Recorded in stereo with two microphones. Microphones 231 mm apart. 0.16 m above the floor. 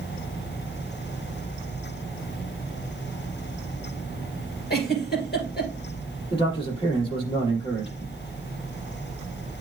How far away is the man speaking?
About 5 m.